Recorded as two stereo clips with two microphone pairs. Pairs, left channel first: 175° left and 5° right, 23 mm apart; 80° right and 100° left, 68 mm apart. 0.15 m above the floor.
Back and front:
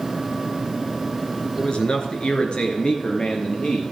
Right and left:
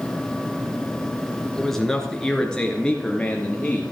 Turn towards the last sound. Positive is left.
turn(degrees=-145)